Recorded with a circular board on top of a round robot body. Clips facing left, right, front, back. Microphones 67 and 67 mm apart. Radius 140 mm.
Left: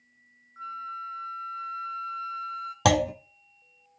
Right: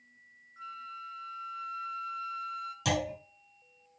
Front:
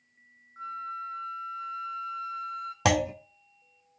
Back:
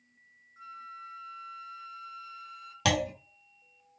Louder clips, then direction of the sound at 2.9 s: Left 9 dB, front 3 dB; 65° left.